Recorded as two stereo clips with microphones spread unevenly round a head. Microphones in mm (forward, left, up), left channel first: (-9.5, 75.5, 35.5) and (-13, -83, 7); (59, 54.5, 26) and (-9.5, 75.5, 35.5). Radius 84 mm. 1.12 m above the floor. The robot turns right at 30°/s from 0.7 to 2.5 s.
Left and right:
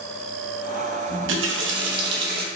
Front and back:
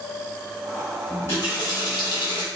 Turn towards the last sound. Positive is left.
turn(degrees=-55)